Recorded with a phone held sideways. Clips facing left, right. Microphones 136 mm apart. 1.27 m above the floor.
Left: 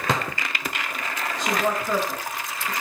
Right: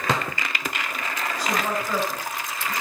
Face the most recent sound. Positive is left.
turn(degrees=20)  # may be behind; listen again after turning